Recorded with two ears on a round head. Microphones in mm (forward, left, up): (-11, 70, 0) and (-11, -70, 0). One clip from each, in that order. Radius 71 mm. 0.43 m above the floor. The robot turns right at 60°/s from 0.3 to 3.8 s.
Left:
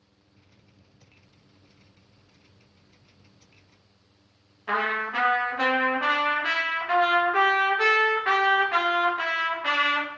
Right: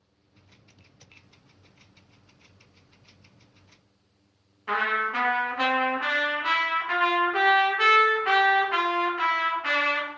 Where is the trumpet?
5° left (ahead or behind), 0.8 m.